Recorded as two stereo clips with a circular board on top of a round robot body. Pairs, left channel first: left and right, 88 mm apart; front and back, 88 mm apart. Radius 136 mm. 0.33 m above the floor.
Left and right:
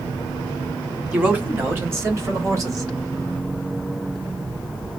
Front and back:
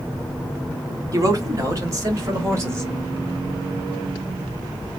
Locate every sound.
1.1 s a man speaking: 155° right, 1.8 m; by 2.9 s 130° right, 2.5 m